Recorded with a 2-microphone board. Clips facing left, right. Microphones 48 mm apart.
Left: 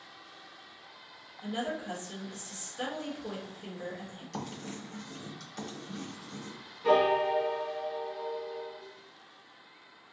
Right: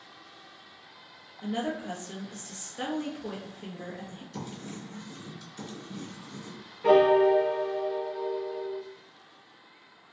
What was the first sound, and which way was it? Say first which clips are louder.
A woman speaking: right 3 dB; 50° right (ahead or behind).